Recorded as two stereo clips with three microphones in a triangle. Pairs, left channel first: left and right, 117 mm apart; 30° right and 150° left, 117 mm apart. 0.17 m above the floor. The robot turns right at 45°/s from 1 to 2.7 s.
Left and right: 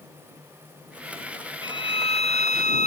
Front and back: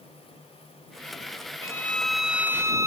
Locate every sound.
1.6 s a violin: 35° left; by 2.9 s 85° left